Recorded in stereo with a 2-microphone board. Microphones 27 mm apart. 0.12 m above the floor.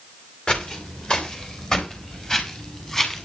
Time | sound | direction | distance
0.5 | footsteps | 35° left (ahead or behind) | 4.5 m